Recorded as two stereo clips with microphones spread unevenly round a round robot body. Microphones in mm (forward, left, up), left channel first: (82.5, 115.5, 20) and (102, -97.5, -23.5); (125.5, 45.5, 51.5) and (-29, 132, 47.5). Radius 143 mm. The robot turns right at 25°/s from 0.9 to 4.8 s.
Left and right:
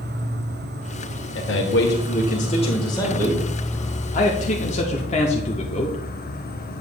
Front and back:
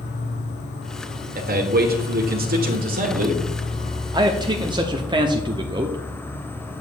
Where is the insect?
50° right, 1.0 m; by 6.8 s 50° left, 1.0 m.